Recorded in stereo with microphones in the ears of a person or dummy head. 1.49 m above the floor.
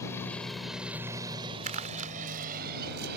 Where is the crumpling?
40° right (ahead or behind).